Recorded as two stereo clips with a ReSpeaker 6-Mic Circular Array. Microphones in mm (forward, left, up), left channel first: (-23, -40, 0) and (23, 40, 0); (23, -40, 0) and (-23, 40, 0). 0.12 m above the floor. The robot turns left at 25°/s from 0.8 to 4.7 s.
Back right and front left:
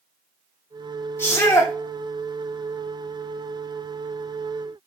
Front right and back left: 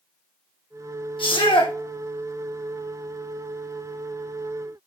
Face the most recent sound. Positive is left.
turn(degrees=-145)